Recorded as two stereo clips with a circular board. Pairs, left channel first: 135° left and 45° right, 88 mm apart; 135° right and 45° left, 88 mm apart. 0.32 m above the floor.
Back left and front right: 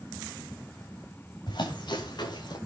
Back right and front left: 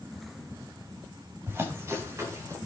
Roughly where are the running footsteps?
Left.